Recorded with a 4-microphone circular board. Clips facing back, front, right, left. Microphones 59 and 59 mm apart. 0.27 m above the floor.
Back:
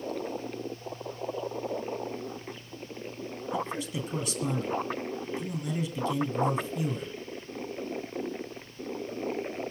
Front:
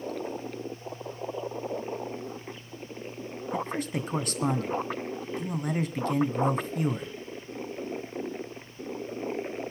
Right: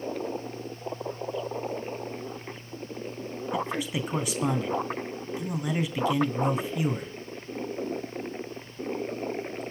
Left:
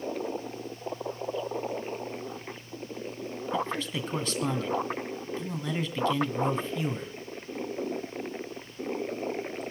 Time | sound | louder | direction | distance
3.5 | a man speaking | front 2 dB, right 1 dB | 15° right | 2.5 m